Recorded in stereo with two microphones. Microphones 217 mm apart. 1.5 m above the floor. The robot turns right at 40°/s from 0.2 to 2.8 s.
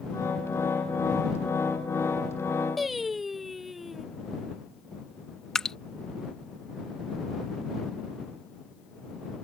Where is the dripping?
5° left (ahead or behind).